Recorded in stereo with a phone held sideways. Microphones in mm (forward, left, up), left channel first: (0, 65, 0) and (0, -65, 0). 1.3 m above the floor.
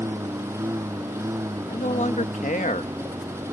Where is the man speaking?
70° left (ahead or behind).